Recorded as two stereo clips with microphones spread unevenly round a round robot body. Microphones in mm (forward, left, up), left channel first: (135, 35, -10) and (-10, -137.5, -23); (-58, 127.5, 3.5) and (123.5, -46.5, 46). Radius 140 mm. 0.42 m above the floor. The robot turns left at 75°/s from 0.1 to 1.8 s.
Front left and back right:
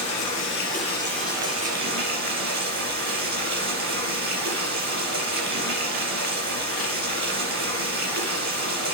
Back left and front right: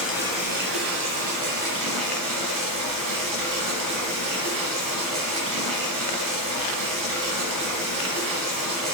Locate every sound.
0.0 s running water: 45° left, 4 m; by 8.9 s 85° right, 4 m